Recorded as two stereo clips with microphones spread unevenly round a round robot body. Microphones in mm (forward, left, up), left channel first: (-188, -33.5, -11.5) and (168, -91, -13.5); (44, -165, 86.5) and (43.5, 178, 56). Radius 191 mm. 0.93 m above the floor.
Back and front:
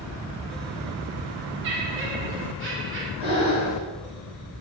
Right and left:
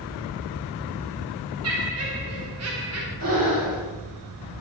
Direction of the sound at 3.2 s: 45° left.